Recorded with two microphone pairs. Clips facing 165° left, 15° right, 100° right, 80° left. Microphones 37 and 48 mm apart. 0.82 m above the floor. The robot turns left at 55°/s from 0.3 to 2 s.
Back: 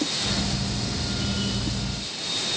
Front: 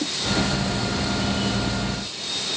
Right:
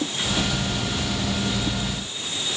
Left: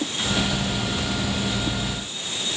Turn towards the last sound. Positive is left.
No sound to turn to.